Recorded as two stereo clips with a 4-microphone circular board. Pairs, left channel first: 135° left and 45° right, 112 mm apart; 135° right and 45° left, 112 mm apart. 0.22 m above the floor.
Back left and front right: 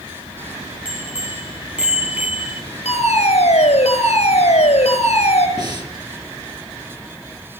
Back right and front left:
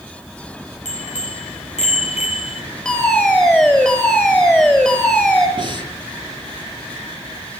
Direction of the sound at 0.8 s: 125° right.